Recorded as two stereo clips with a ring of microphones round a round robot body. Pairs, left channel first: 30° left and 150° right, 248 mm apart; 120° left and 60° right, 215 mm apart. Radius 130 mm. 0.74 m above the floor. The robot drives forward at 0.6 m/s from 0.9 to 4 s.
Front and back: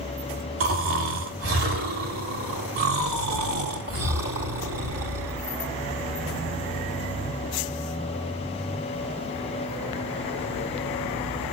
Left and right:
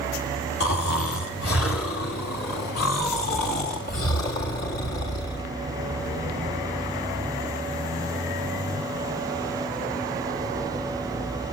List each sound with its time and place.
0.6 s snoring: 170° left, 5.5 m; by 5.5 s 175° left, 7.5 m